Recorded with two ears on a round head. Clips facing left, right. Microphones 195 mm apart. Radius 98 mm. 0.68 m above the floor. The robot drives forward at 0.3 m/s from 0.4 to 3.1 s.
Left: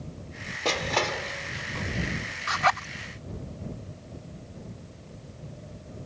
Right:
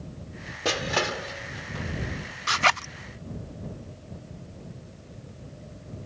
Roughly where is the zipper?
Right.